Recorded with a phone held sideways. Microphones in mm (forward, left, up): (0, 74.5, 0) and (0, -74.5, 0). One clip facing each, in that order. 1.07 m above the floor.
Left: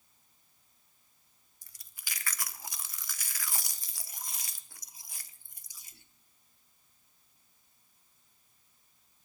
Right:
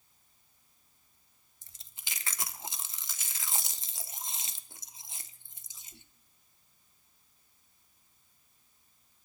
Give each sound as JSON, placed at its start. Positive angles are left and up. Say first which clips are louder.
{"t": 1.6, "sound": "chewing", "louder": "even", "side_deg": -25, "distance_m": 0.5}